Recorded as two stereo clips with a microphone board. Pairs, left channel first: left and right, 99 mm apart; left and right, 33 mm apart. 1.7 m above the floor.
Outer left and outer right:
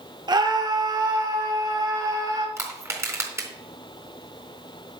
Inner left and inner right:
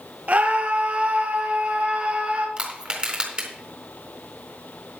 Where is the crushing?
25° right (ahead or behind), 4 m.